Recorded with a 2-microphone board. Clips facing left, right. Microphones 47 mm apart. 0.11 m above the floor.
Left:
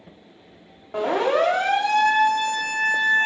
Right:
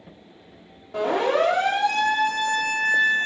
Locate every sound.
0.9 s a siren: 35° left (ahead or behind), 8 m; by 3.3 s 45° left (ahead or behind), 8.5 m